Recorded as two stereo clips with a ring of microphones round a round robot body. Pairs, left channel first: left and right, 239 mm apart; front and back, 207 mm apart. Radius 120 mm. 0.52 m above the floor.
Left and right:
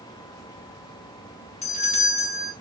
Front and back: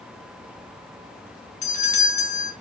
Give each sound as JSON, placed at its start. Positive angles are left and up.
{"t": 1.6, "sound": "a doorbell", "azimuth_deg": 40, "distance_m": 1.3}